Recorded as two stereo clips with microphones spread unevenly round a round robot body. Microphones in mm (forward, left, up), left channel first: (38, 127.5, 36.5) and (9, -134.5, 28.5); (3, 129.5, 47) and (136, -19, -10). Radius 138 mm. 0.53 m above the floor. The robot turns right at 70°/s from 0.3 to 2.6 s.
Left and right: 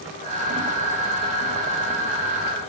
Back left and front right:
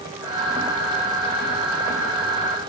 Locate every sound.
Only background noise.